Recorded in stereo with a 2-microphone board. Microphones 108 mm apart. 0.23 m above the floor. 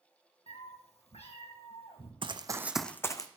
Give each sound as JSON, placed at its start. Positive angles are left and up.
{"t": 0.5, "sound": "a cat meowing", "side_deg": 75, "distance_m": 1.2}
{"t": 2.2, "sound": "running footsteps", "side_deg": -55, "distance_m": 0.7}